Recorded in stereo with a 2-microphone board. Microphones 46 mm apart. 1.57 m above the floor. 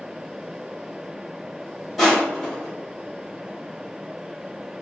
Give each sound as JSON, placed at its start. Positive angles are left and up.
{"t": 2.0, "sound": "crushing", "side_deg": 0, "distance_m": 1.6}